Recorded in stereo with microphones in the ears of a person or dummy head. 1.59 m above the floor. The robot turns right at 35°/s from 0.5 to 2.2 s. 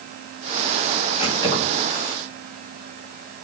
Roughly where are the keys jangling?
Left.